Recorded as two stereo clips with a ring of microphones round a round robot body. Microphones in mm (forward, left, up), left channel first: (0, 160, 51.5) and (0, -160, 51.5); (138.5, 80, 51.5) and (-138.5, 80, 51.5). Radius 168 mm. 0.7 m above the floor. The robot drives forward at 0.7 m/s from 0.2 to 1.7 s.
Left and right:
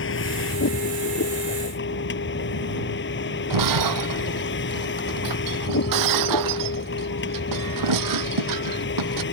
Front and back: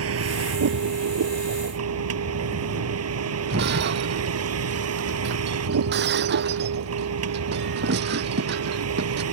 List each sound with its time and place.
0.0 s a vehicle: 145° left
3.5 s breaking glass: 120° right